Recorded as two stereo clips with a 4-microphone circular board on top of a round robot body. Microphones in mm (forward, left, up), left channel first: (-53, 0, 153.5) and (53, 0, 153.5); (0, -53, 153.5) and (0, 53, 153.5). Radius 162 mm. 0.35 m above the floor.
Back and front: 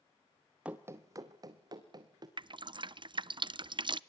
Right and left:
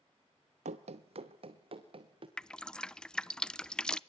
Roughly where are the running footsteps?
Left.